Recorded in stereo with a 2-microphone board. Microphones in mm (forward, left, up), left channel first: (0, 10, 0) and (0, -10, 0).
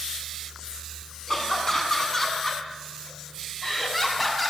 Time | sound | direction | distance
1.3 | laughter | 20° left (ahead or behind) | 7.5 m